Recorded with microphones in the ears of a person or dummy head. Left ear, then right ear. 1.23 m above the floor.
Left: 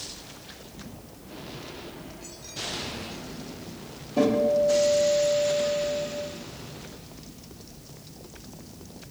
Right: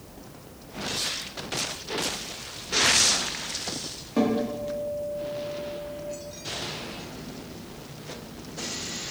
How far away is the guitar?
About 0.9 m.